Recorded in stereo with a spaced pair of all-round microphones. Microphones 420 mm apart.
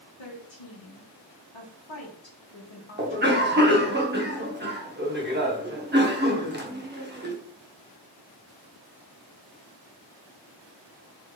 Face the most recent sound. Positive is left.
turn(degrees=-25)  # may be behind; listen again after turning